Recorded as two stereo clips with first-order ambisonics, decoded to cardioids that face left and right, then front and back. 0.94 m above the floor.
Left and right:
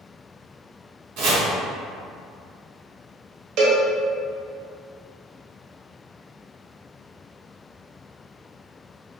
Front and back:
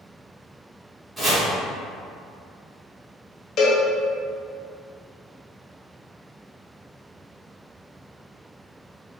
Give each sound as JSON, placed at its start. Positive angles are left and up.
{"t": 1.2, "sound": "chopping", "azimuth_deg": -105, "distance_m": 1.1}
{"t": 3.6, "sound": "a cowbell", "azimuth_deg": -55, "distance_m": 0.6}